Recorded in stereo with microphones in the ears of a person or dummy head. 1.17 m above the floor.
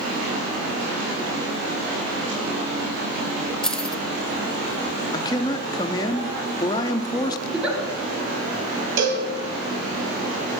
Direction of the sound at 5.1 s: 20° left (ahead or behind).